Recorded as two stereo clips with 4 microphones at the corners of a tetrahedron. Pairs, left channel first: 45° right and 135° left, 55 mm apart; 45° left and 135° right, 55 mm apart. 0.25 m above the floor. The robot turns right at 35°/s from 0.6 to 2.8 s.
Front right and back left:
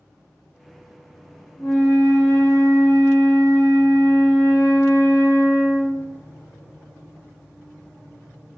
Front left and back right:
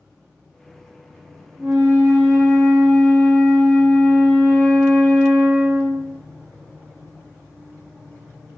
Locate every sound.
1.6 s a flute: 100° right, 1.1 m; by 6.2 s 55° right, 1.1 m